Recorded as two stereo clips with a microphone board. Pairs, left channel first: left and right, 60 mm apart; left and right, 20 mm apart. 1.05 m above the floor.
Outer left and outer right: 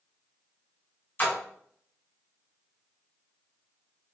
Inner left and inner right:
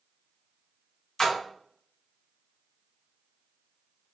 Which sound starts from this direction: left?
A splash, at 1.2 s.